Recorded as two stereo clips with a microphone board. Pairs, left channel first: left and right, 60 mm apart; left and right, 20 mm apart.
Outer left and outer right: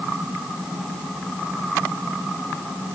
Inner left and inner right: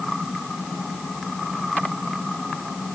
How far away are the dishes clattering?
I don't hear dishes clattering.